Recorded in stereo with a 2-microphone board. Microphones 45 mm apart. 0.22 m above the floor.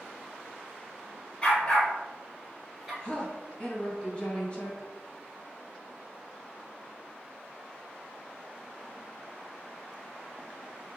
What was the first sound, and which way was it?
A dog barking, 25° left (ahead or behind).